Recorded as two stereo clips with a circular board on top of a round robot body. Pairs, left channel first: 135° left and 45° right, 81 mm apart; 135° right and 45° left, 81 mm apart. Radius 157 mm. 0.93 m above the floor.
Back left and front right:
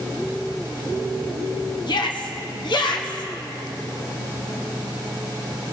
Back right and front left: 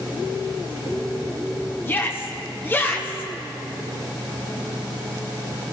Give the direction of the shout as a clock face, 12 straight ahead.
7 o'clock.